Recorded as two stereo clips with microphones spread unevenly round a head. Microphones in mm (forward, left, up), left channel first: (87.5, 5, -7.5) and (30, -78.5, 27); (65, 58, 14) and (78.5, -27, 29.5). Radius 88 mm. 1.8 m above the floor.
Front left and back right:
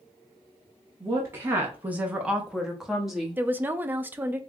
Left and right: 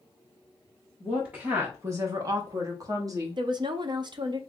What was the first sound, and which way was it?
A woman speaking, 160° right.